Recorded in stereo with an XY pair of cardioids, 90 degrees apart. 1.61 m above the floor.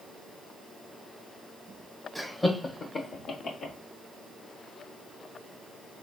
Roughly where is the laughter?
Ahead.